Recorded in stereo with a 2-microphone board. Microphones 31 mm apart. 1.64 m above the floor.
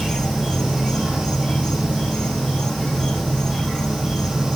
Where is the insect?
10° left (ahead or behind), 1.5 m.